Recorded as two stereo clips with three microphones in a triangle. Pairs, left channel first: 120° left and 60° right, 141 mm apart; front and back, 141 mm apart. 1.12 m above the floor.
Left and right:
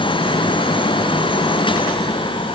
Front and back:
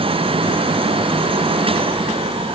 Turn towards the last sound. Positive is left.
No sound to turn to.